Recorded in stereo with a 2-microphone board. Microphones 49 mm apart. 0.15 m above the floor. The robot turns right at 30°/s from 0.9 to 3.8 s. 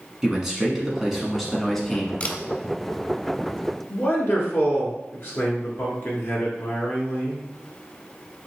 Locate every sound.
0.2 s a man speaking: 10° right (ahead or behind), 1.3 m; by 2.1 s 10° left (ahead or behind), 1.3 m
2.2 s a camera shutter: 30° left (ahead or behind), 0.6 m; by 2.4 s 25° left (ahead or behind), 0.6 m
3.9 s a man speaking: 45° left (ahead or behind), 2.0 m